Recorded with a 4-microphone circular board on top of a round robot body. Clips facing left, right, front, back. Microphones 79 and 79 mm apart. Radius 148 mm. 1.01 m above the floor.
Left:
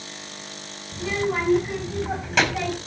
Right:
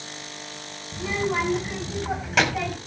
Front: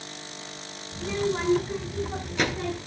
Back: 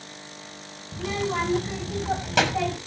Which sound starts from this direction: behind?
A child speaking, at 0.9 s.